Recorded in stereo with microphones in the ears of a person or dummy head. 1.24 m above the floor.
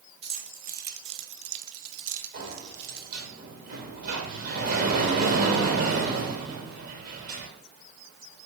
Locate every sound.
0.2 s keys jangling: 30° right (ahead or behind), 1.1 m; by 3.2 s 50° right (ahead or behind), 1.6 m
2.3 s a sliding door: 45° right (ahead or behind), 2.5 m